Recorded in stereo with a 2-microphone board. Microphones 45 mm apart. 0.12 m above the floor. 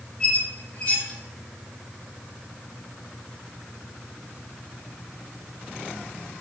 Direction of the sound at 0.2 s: 20° left (ahead or behind).